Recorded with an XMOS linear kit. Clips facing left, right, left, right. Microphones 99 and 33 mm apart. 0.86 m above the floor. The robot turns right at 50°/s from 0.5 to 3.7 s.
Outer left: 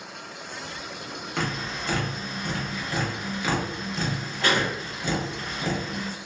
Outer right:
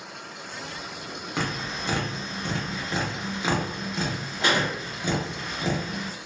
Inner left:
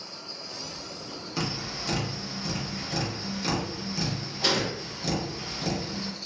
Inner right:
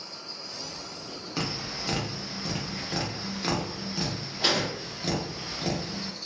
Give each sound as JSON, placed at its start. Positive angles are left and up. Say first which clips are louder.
{"t": 1.4, "sound": "tapping", "louder": "even, even", "side_deg": -10, "distance_m": 0.8}